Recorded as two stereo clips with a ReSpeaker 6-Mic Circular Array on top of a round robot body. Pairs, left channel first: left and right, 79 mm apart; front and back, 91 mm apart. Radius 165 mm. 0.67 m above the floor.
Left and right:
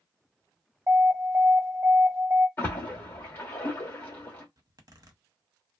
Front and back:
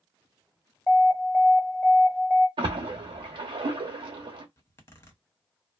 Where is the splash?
155° left, 0.8 m.